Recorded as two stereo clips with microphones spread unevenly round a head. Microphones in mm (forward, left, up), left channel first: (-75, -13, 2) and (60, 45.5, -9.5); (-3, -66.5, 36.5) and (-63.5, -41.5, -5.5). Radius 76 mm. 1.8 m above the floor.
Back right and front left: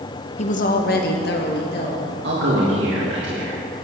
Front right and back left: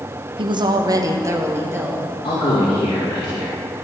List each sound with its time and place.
0.4 s a woman speaking: 170° left, 1.3 m; by 2.1 s 130° right, 3 m
2.2 s a man speaking: straight ahead, 3 m